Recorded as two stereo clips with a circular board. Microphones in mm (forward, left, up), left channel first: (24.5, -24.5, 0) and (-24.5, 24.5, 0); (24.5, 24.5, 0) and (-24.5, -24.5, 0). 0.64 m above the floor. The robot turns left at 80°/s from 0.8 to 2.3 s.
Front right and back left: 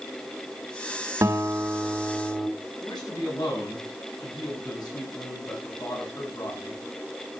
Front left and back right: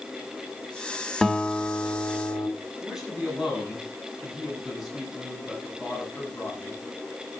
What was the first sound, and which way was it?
A guitar, 125° left.